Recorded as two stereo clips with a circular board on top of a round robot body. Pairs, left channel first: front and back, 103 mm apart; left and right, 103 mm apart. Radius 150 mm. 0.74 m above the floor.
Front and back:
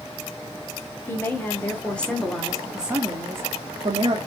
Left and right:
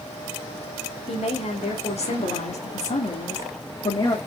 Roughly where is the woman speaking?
Left.